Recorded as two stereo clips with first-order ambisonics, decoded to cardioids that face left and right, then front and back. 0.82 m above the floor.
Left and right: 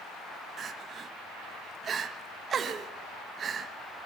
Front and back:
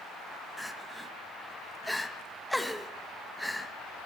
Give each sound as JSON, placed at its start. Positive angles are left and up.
{"t": 0.6, "sound": "crying", "azimuth_deg": -85, "distance_m": 1.1}